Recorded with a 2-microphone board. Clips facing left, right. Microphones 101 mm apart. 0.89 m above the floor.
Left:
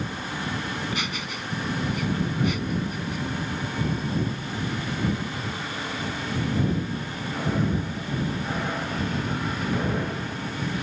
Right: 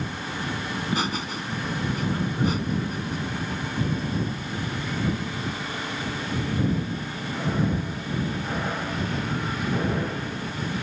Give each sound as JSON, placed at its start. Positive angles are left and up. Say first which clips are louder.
{"t": 0.7, "sound": "laughter", "louder": "right 3 dB", "side_deg": -35}